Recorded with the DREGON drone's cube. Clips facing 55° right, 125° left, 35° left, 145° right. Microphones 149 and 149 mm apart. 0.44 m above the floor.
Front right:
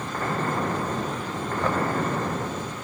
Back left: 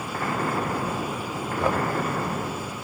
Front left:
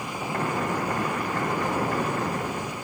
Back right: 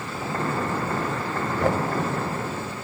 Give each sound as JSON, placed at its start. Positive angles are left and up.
{"t": 1.6, "sound": "knocking", "azimuth_deg": -160, "distance_m": 1.8}